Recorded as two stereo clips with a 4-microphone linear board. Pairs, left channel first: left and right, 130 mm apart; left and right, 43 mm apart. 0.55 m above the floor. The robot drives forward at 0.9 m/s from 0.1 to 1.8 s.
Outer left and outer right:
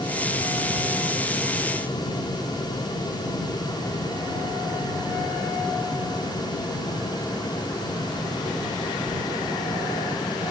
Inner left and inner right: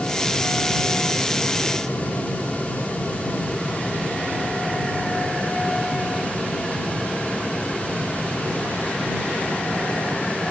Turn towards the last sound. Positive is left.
No sound to turn to.